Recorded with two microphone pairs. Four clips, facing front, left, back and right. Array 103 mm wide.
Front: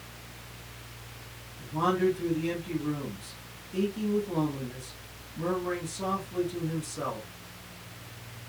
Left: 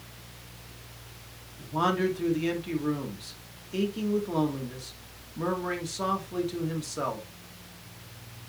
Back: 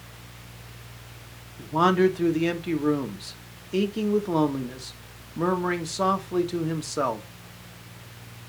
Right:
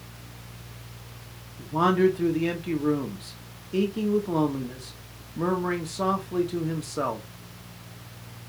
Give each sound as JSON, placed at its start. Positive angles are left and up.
{"t": 1.6, "sound": "a man speaking", "azimuth_deg": -170, "distance_m": 1.9}